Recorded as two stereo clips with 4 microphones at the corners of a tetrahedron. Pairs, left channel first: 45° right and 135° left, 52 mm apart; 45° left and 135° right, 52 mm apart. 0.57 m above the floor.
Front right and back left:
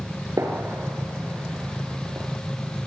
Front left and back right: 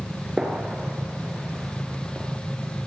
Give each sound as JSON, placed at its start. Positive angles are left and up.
{"t": 0.4, "sound": "a gunshot", "azimuth_deg": 145, "distance_m": 5.0}